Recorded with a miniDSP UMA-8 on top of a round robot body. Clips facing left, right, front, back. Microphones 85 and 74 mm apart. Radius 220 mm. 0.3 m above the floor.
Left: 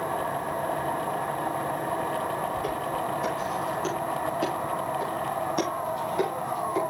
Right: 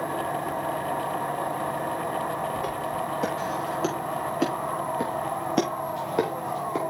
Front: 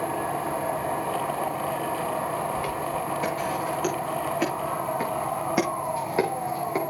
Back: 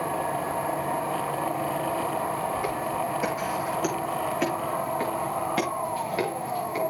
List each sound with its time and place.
2.6 s footsteps: 110° right, 6.5 m; by 6.8 s 60° right, 5.5 m